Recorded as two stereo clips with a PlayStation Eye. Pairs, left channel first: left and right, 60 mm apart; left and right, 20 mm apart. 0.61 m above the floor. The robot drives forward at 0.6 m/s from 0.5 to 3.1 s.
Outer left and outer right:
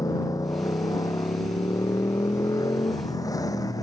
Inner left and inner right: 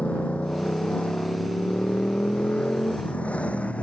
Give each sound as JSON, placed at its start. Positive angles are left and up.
{"t": 0.0, "sound": "a motorcycle", "side_deg": 75}